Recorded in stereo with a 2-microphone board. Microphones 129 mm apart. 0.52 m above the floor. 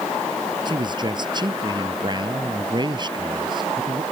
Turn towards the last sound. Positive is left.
turn(degrees=-35)  # may be behind; listen again after turning